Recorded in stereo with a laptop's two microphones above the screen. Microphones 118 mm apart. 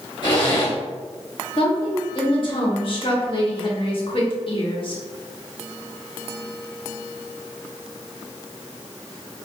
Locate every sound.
0.2 s a zipper: 40° left (ahead or behind), 1.4 m
1.6 s a woman speaking: 50° left (ahead or behind), 1.3 m